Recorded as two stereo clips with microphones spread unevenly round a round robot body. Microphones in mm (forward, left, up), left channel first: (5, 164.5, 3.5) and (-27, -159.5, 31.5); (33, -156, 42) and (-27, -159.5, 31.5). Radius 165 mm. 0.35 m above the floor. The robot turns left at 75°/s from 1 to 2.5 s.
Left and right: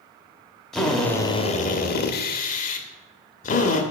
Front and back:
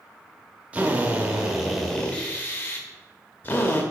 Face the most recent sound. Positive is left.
turn(degrees=50)